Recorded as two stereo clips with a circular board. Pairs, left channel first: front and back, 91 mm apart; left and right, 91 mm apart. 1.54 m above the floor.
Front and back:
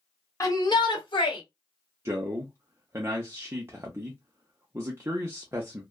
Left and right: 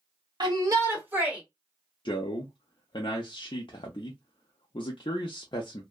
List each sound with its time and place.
0.4 s a shout: 55° right, 1.1 m; by 1.4 s 10° right, 1.4 m
2.0 s a man speaking: 115° left, 0.5 m